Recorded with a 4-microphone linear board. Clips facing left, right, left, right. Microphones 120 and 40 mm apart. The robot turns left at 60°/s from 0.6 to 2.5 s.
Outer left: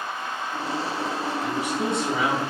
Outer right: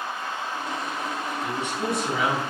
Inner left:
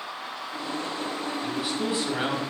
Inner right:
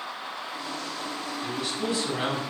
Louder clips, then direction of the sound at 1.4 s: Outer left 1 dB, even; 175° right.